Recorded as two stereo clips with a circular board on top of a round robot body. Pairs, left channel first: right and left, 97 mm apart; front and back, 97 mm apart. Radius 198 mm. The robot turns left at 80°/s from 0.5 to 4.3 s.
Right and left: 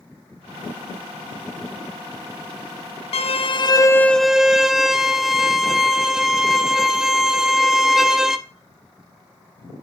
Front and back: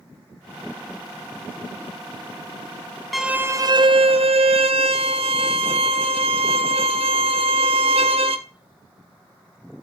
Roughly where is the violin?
Right.